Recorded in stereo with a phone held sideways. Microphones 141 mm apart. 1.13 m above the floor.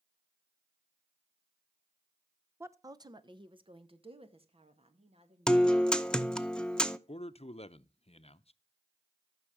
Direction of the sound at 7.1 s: 45° left (ahead or behind).